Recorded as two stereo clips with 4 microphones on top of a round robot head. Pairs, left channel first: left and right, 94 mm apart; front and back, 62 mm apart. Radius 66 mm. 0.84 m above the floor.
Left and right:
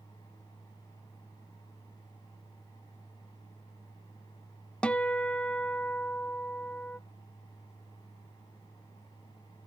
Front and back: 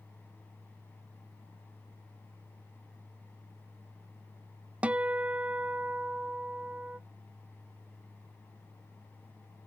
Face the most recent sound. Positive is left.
turn(degrees=150)